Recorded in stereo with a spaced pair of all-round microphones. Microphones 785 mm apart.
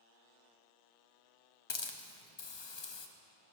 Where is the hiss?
40° left (ahead or behind), 0.5 m.